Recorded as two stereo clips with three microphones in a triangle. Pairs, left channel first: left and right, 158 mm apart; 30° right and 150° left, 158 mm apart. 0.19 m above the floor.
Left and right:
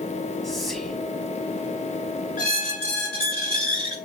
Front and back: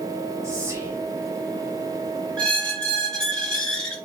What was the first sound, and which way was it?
Whispering, 175° left.